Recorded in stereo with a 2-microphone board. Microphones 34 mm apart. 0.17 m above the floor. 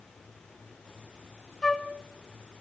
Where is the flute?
15° left (ahead or behind), 1.0 m.